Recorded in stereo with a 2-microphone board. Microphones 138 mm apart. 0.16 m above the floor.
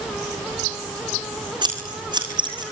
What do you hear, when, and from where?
1.6 s scissors: 35° right (ahead or behind), 6.5 m